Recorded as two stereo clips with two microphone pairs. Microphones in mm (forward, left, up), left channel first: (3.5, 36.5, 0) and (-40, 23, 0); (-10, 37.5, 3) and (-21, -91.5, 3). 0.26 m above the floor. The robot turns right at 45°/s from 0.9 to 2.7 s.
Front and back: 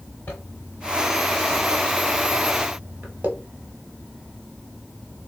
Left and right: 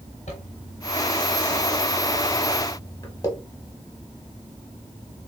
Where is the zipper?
65° left, 1.2 m; by 3.3 s 145° left, 1.2 m.